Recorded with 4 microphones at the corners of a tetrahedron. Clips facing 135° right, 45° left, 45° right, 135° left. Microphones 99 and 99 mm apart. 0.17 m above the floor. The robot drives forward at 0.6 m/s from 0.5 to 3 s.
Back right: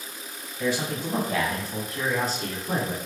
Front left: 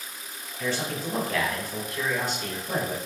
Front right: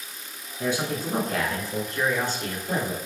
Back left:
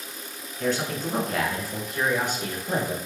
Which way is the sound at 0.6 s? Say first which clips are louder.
Back right 3 dB, even; 75° right.